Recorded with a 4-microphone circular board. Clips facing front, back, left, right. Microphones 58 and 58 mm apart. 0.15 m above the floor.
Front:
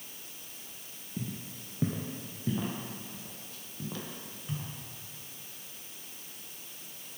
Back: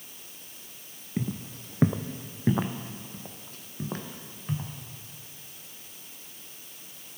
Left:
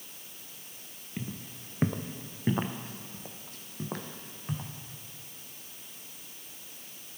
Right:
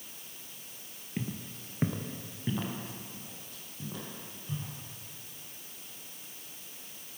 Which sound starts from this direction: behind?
Footsteps, at 1.2 s.